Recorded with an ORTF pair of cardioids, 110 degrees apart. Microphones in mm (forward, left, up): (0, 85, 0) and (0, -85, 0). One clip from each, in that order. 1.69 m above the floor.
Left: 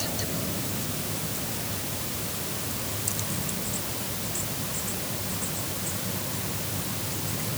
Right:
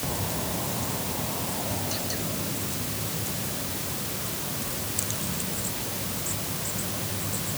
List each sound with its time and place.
Only background noise.